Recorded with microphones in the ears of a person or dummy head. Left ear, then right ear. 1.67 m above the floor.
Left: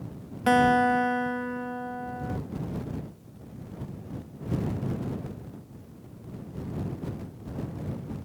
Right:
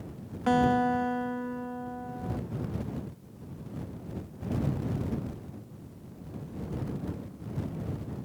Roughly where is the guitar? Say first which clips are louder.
Left 4 dB; centre.